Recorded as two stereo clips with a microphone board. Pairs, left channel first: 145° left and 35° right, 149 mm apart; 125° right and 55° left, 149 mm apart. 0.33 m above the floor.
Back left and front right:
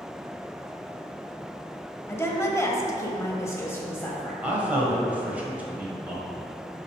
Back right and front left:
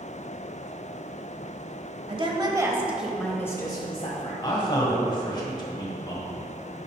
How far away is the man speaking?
About 1.4 m.